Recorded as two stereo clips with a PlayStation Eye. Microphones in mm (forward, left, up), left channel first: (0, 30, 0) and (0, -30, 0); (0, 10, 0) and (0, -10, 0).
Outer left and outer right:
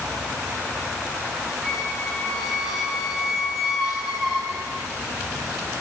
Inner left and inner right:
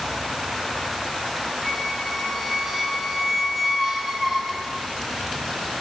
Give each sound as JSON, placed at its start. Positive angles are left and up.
{"t": 1.6, "sound": "a squeak", "side_deg": 0, "distance_m": 3.0}